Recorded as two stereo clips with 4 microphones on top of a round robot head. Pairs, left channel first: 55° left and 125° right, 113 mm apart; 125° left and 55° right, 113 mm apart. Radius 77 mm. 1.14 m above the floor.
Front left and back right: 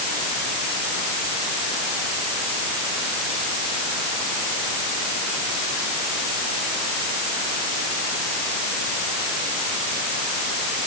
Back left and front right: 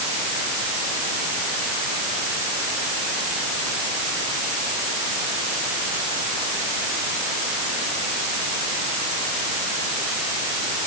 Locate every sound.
Only background noise.